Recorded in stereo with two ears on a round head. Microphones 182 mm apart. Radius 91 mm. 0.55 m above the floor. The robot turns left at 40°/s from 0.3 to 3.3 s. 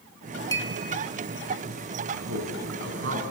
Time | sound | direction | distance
0.5 | a clink | 15° left (ahead or behind) | 0.9 m
2.1 | a man speaking | 75° right (ahead or behind) | 5.5 m